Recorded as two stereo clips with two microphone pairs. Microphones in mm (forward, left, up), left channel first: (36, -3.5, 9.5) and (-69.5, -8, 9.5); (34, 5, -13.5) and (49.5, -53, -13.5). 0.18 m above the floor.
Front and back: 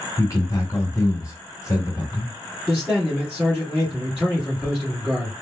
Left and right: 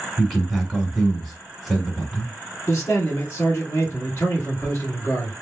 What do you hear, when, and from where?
0.2 s a man speaking: 15° left, 1.8 m
2.7 s a man speaking: 95° left, 2.0 m